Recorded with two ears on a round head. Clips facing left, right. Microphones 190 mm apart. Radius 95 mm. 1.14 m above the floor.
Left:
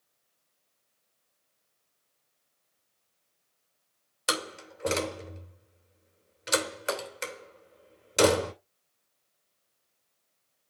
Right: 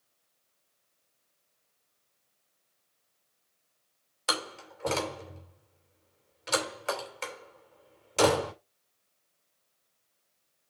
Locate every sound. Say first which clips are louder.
4.3 s a door slam: left 2 dB; 20° left (ahead or behind), 2.5 m